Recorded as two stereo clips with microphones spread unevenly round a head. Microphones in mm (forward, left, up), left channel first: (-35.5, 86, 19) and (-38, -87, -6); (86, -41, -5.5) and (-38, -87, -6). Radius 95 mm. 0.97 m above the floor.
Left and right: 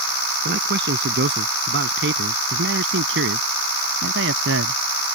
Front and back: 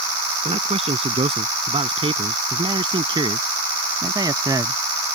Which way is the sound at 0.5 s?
115° right.